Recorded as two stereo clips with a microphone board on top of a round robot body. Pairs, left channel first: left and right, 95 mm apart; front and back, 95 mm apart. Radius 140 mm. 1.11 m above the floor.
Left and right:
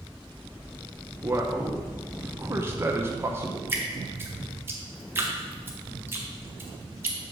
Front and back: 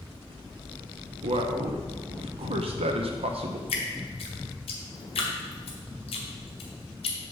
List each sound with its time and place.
1.2 s a man speaking: 155° right, 0.6 m
3.7 s dripping: 20° right, 0.6 m